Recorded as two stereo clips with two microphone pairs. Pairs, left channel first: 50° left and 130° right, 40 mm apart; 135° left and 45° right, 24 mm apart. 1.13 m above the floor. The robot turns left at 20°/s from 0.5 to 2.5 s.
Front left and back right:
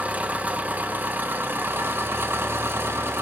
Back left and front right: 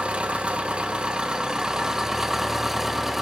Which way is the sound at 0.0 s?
85° right.